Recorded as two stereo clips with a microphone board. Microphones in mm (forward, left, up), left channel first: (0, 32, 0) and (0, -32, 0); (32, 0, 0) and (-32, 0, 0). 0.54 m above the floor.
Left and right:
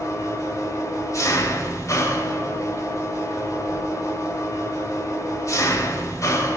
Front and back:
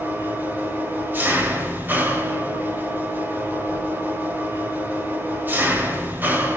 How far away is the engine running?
About 2.5 m.